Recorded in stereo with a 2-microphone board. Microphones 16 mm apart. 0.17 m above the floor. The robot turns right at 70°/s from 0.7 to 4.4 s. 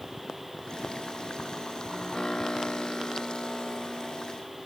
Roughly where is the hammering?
No hammering in this recording.